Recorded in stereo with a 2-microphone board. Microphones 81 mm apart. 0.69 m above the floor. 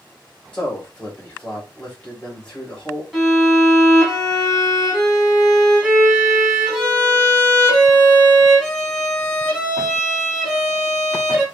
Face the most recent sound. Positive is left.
turn(degrees=0)  # may be behind; listen again after turning